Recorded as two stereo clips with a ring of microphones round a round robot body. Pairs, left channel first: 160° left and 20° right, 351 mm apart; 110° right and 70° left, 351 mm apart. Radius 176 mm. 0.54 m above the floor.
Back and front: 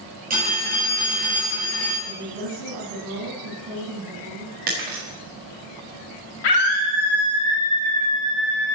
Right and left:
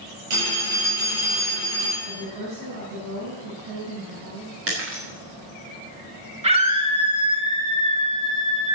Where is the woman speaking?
15° left, 6 m.